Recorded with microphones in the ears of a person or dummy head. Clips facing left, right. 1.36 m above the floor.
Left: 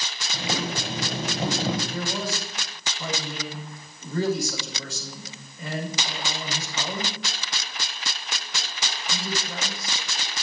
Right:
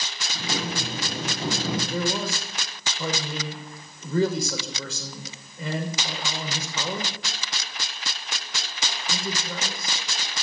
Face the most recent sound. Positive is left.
turn(degrees=-70)  # may be behind; listen again after turning